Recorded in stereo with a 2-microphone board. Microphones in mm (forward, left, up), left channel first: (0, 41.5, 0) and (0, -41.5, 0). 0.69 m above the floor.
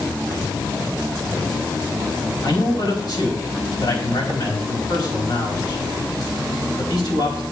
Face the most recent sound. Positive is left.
turn(degrees=60)  # may be behind; listen again after turning